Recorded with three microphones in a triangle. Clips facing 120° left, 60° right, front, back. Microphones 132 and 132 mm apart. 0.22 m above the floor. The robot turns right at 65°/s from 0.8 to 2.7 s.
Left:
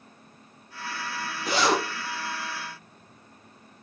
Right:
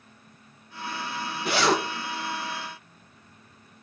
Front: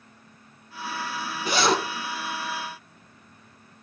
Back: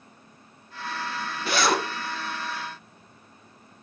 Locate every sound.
1.4 s a zipper: 75° right, 4 m; by 1.8 s 50° right, 4 m